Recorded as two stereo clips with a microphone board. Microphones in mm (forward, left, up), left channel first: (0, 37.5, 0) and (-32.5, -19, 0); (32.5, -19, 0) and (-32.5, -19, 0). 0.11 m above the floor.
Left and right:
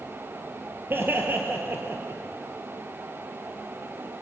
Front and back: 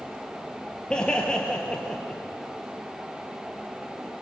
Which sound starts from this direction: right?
Laughter, at 0.9 s.